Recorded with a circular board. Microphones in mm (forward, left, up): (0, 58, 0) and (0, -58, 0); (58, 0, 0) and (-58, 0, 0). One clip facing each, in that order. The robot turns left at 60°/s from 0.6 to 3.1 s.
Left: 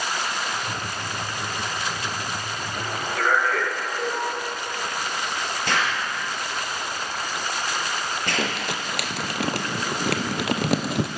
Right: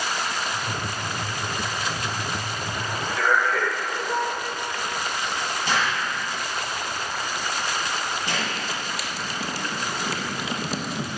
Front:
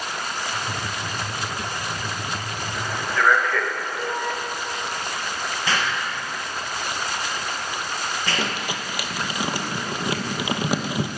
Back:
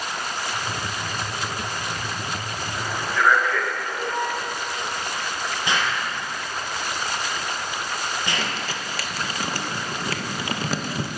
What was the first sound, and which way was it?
A man speaking, 120° left.